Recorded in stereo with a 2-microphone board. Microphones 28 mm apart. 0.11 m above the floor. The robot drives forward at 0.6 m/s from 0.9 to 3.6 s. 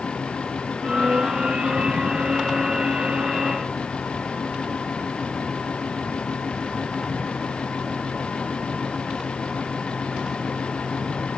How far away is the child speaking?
I don't hear a child speaking.